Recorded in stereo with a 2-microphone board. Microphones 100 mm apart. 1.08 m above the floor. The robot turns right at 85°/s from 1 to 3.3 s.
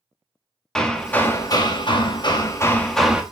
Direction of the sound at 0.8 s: 5° left.